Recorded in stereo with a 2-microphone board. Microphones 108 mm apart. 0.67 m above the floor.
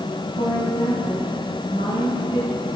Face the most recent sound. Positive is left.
turn(degrees=80)